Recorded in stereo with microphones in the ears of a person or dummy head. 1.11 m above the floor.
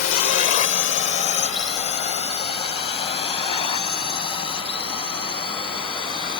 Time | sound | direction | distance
0.0 | a drone | 45° left (ahead or behind) | ?